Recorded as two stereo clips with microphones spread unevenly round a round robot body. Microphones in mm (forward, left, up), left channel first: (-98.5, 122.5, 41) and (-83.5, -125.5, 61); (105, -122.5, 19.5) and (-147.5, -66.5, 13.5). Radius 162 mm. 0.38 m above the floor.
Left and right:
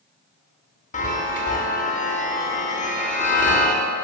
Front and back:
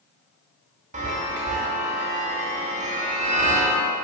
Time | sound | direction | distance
0.9 | a chime | 125° left | 1.0 m